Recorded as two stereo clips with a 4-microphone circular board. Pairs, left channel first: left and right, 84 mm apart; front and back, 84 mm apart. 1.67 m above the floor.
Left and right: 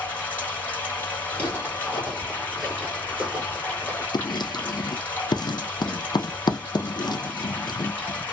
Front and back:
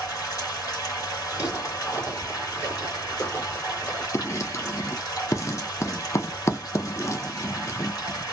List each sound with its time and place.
0.0 s running water: 25° left, 2 m
1.3 s footsteps: 30° left, 2 m; by 4.0 s 45° right, 1.8 m
4.1 s writing: 55° left, 0.5 m